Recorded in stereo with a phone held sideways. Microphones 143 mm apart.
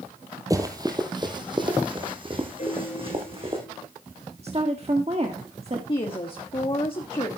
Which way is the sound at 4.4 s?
45° right (ahead or behind).